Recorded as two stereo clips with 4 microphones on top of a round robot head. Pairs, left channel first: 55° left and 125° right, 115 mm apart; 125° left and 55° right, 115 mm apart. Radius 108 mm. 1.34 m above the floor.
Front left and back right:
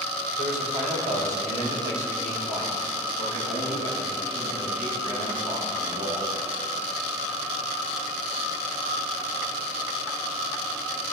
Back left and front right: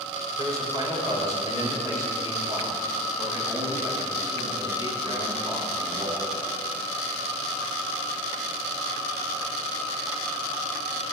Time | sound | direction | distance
0.4 | a man speaking | 115° right | 6 m